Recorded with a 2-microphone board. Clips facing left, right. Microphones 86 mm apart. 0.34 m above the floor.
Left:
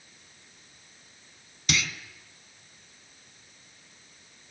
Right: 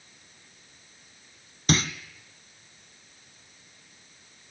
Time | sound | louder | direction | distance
1.7 | a clunk | right 5 dB | 40° right (ahead or behind) | 1.3 m